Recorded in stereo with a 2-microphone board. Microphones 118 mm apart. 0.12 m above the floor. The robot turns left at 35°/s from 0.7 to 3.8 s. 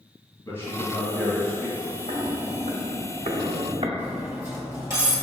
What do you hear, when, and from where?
0.5 s a man speaking: 40° left, 1.6 m; by 2.0 s 5° right, 1.6 m
2.1 s footsteps: 65° right (ahead or behind), 0.9 m; by 3.9 s 60° right (ahead or behind), 0.7 m
4.0 s cutlery clinking: 25° right (ahead or behind), 1.5 m